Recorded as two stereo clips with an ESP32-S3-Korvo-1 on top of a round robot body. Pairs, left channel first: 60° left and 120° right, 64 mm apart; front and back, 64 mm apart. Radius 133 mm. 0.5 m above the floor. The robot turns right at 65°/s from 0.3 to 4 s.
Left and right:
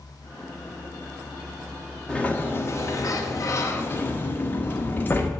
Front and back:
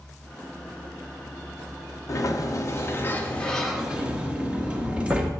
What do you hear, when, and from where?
2.1 s a sliding door: 10° right, 1.4 m; by 5.3 s 115° left, 1.4 m